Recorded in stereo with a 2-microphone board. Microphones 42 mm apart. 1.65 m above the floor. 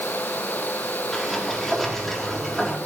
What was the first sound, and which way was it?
A sliding door, 5° left (ahead or behind).